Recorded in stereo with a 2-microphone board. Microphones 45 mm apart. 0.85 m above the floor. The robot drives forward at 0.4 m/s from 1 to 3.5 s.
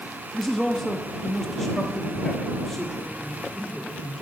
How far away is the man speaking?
About 0.9 m.